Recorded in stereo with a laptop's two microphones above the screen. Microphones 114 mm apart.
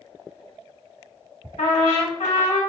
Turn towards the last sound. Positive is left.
turn(degrees=85)